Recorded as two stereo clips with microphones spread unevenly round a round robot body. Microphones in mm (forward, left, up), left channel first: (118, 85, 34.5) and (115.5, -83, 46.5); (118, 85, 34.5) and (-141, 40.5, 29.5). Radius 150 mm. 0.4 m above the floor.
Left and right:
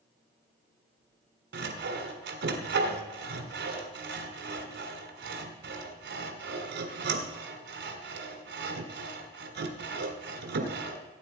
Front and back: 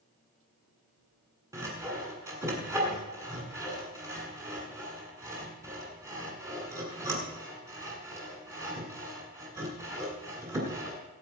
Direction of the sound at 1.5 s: 90° right.